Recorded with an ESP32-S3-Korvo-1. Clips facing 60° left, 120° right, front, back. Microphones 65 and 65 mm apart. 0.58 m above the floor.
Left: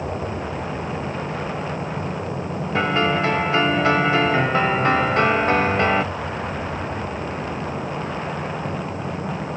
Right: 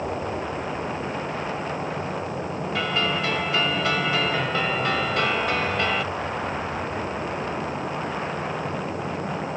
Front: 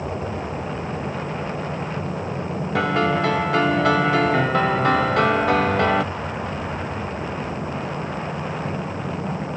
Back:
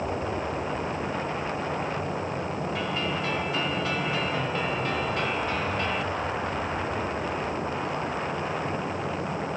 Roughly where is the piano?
Ahead.